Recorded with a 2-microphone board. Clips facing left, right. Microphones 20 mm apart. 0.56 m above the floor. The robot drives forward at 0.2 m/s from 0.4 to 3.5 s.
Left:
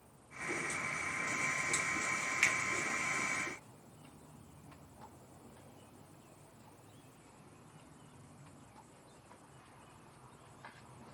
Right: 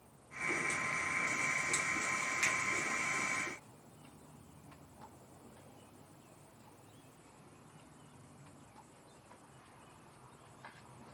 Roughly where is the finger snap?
Left.